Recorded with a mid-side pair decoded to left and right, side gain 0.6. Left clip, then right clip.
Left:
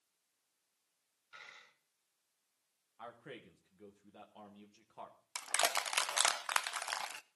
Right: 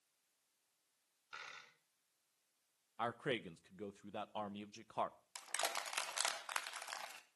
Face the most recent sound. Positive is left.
turn(degrees=40)